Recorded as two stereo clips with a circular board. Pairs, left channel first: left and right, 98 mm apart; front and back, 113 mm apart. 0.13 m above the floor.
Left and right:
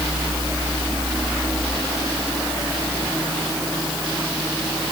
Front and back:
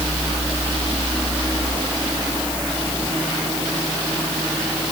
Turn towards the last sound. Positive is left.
No sound to turn to.